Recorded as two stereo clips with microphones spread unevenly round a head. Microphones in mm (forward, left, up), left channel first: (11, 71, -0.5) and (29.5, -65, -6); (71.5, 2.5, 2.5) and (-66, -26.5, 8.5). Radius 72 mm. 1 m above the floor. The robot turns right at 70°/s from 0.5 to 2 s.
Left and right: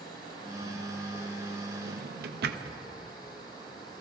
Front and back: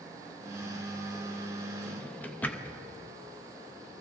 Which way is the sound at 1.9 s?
80° right.